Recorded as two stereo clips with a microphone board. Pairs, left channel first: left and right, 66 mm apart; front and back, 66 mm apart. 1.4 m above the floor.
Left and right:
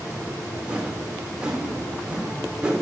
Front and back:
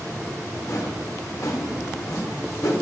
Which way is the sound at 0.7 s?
20° right.